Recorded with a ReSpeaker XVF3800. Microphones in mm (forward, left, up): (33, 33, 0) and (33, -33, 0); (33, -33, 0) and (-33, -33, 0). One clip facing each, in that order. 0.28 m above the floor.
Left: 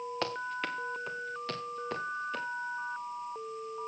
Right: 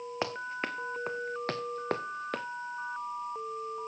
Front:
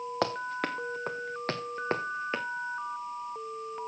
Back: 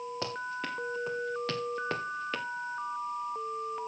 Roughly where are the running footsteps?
Ahead.